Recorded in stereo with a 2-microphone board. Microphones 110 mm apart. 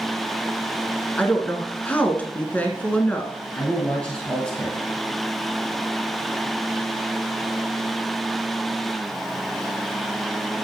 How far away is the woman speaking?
About 1.1 m.